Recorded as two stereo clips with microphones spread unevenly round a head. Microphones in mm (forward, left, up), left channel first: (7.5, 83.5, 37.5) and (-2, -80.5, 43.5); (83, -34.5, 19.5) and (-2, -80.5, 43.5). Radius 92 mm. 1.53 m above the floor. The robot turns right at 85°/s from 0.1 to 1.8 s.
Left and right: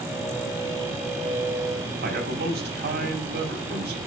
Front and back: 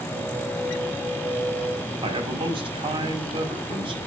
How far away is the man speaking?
About 5.5 m.